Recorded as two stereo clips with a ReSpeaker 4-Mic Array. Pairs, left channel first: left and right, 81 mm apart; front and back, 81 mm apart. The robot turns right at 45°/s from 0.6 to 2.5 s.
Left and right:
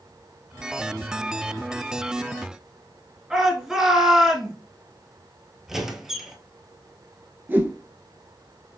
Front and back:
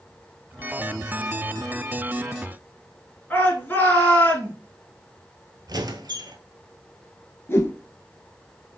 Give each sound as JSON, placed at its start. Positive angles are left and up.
{"t": 3.3, "sound": "a shout", "azimuth_deg": -15, "distance_m": 1.4}
{"t": 5.7, "sound": "a squeak", "azimuth_deg": -175, "distance_m": 0.7}
{"t": 7.5, "sound": "a whoosh", "azimuth_deg": -40, "distance_m": 0.7}